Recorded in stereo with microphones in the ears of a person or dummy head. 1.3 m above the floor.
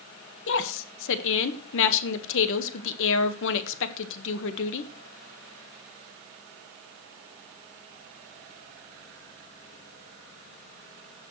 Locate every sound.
0.5 s a woman speaking: 70° left (ahead or behind), 1.4 m